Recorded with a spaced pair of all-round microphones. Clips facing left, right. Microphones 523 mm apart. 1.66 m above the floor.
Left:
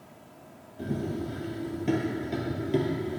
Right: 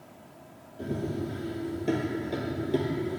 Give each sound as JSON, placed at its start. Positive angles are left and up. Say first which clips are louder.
{"t": 0.8, "sound": "running footsteps", "louder": "even", "side_deg": 20, "distance_m": 1.8}